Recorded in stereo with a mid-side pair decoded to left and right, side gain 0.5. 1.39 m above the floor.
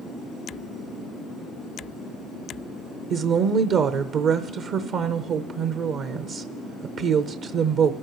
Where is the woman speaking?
65° right, 0.7 m.